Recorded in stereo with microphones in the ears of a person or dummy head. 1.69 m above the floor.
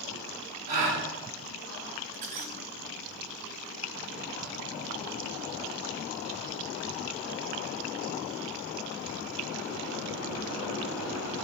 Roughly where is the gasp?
Right.